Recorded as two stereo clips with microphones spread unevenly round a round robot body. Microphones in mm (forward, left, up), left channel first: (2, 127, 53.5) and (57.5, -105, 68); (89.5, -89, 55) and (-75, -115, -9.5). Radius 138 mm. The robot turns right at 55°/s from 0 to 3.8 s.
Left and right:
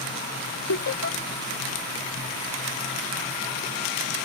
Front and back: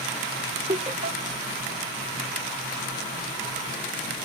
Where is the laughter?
125° left; by 1.2 s 150° left.